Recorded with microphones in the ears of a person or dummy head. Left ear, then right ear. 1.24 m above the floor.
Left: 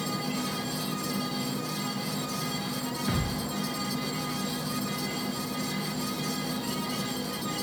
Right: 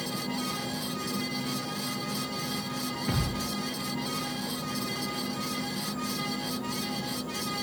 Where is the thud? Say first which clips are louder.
Even; 20° left (ahead or behind), 9 m.